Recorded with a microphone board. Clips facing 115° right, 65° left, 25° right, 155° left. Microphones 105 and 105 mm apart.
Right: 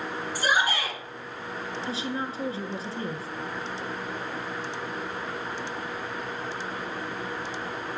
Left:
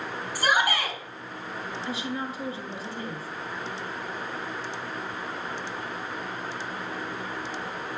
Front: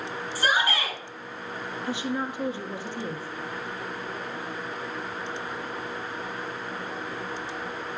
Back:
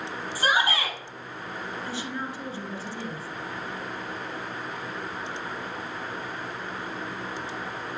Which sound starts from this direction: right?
A woman speaking, at 1.9 s.